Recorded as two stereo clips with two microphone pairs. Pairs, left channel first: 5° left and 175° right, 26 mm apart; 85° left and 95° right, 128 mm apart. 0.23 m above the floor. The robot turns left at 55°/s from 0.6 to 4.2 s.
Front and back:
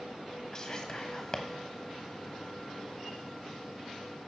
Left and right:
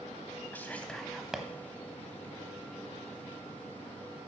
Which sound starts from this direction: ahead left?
Whispering, at 0.5 s.